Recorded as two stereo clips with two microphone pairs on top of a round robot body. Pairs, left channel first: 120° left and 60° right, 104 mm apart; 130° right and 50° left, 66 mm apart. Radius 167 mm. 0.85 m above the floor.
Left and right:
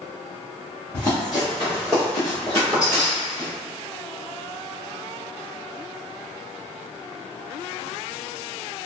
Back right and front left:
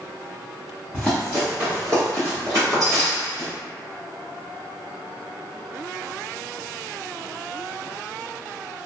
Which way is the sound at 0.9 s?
160° left.